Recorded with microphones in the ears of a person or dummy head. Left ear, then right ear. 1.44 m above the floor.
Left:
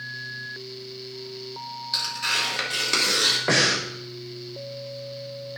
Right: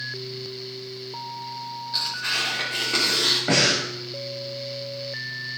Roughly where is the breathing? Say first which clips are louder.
Right 1 dB; left.